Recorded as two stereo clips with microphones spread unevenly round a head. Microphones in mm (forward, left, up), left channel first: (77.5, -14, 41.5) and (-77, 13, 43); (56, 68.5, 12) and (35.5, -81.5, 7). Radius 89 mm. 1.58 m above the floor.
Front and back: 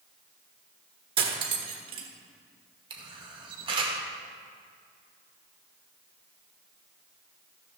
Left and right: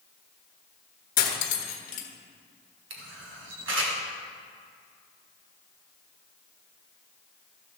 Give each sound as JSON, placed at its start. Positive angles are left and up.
{"t": 1.2, "sound": "cutlery clinking", "azimuth_deg": 115, "distance_m": 1.3}
{"t": 2.9, "sound": "a camera shutter", "azimuth_deg": -125, "distance_m": 1.9}